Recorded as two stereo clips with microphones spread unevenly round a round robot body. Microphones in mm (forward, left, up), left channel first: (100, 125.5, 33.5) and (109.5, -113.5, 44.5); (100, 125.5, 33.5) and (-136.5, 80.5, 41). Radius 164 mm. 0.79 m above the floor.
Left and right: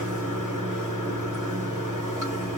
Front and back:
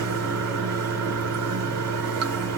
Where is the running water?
155° right, 1.0 m.